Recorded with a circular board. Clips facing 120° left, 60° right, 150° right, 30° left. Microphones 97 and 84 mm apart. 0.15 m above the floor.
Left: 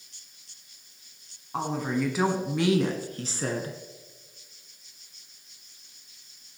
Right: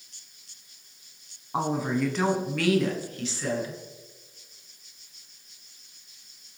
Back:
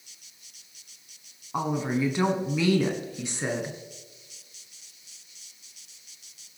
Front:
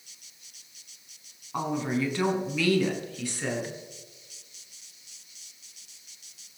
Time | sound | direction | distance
1.5 | a woman speaking | 100° right | 1.4 m